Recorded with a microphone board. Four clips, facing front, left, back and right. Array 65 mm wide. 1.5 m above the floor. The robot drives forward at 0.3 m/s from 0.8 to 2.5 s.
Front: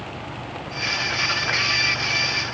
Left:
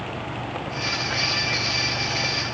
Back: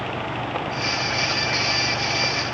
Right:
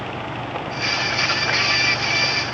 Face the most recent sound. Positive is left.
No sound to turn to.